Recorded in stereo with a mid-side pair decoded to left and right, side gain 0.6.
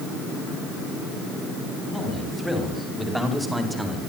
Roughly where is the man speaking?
Ahead.